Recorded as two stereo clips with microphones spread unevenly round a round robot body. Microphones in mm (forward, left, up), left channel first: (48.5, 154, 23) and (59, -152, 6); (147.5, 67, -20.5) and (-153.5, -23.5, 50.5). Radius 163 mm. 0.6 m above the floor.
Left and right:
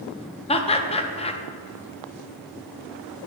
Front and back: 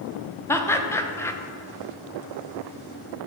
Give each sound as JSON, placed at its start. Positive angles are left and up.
{"t": 0.5, "sound": "laughter", "azimuth_deg": 45, "distance_m": 0.7}